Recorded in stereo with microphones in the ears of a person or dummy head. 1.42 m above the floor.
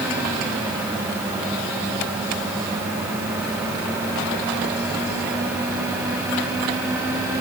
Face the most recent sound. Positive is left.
No sound to turn to.